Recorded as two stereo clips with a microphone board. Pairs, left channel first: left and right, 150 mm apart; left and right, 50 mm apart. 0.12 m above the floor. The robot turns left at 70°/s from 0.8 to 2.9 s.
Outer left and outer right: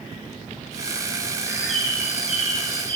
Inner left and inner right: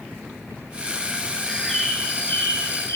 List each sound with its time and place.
1.4 s a bird: 160° right, 7 m; by 3.0 s 95° left, 7 m